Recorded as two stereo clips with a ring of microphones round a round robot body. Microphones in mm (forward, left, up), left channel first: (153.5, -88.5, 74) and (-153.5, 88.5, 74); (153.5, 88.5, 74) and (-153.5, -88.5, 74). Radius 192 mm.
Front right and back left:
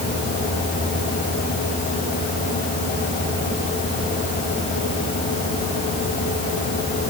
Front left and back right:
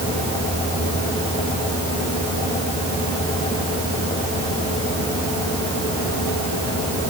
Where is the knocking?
No knocking in this recording.